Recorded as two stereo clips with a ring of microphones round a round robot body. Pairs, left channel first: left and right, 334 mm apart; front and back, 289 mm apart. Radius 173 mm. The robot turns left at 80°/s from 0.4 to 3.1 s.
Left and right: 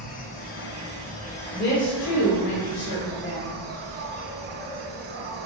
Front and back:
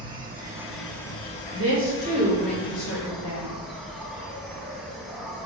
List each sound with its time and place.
0.0 s an insect: 120° left, 1.4 m; by 5.5 s 95° right, 1.4 m
1.5 s a woman speaking: 160° left, 2 m; by 3.5 s 30° left, 2 m